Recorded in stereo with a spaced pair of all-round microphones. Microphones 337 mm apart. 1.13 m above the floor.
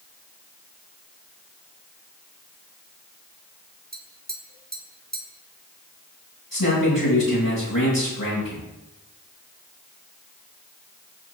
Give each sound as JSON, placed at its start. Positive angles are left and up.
{"t": 3.9, "sound": "tapping", "side_deg": -25, "distance_m": 1.8}
{"t": 6.5, "sound": "a man speaking", "side_deg": 80, "distance_m": 7.0}